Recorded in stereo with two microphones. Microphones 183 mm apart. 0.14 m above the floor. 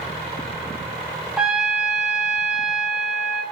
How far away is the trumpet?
About 3.5 m.